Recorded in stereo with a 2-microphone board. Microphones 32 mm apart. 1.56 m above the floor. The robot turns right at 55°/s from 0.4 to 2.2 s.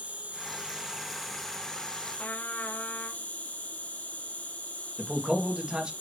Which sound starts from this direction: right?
A man speaking, at 5.0 s.